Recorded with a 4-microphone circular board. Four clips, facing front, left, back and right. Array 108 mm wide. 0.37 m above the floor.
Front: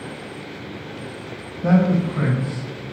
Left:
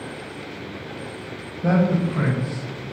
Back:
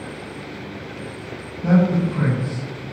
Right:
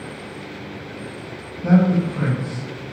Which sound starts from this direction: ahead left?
A man speaking, at 1.6 s.